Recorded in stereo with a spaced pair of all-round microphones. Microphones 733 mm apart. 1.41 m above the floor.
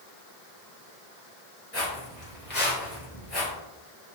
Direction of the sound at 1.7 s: 20° left (ahead or behind).